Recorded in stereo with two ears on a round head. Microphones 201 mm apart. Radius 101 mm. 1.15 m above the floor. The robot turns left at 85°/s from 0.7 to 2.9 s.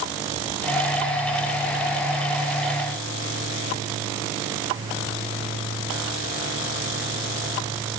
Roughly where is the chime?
No chime in this recording.